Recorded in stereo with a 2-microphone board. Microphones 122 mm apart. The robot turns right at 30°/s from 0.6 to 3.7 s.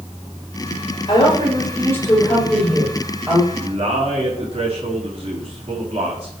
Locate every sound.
1.1 s a woman speaking: 135° left, 8 m; by 3.4 s 155° right, 8 m
3.5 s a man speaking: 60° right (ahead or behind), 4 m; by 6.3 s 55° right (ahead or behind), 4 m